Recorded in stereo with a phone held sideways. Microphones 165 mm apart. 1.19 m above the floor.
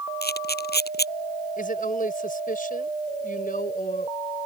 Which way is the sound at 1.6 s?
55° left (ahead or behind).